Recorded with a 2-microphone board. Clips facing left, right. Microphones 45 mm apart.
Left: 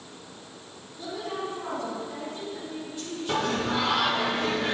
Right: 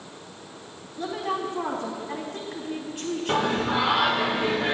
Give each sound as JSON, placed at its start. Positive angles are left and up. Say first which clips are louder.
{"t": 1.0, "sound": "a woman speaking", "louder": "right 5 dB", "side_deg": -65, "distance_m": 3.0}
{"t": 3.3, "sound": "singing", "louder": "right 2 dB", "side_deg": -15, "distance_m": 0.9}